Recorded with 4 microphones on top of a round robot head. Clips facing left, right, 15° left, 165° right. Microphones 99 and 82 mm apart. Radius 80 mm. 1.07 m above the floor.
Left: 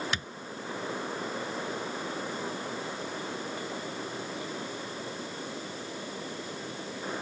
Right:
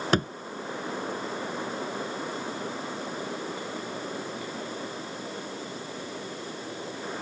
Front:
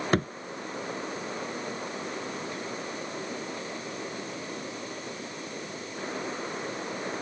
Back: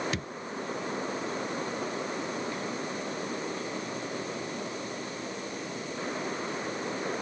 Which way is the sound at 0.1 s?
45° right.